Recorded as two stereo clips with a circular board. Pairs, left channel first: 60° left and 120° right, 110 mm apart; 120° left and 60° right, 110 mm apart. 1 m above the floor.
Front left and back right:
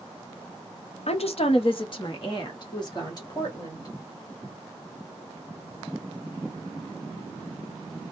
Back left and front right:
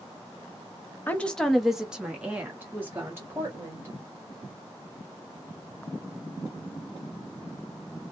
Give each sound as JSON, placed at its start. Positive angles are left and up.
{"t": 1.1, "sound": "a woman speaking", "azimuth_deg": 45, "distance_m": 0.6}